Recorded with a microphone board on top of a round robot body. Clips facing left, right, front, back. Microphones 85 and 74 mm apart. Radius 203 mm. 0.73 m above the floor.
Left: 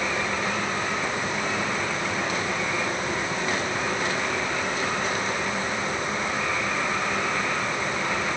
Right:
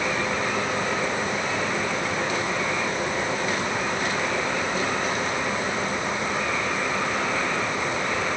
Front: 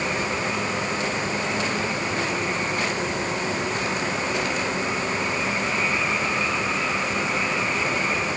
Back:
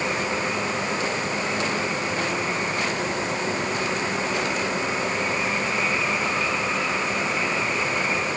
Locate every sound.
Only background noise.